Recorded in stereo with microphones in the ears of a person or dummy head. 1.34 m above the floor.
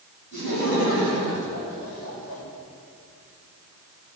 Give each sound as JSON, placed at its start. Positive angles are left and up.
{"t": 0.3, "sound": "laughter", "side_deg": 55, "distance_m": 7.0}